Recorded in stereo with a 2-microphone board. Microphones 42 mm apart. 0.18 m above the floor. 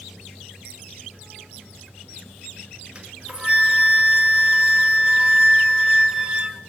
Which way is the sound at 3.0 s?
20° right (ahead or behind).